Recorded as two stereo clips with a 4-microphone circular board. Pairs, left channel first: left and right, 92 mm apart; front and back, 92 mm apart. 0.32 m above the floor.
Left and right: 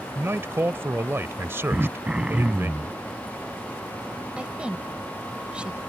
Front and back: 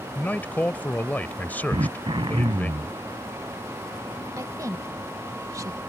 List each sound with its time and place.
0.1 s a man speaking: 55° right
1.7 s throat clearing: 165° right
4.4 s a woman speaking: 160° right